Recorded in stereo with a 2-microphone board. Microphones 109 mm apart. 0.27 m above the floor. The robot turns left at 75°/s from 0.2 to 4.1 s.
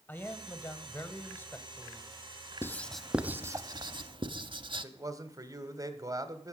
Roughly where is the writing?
Left.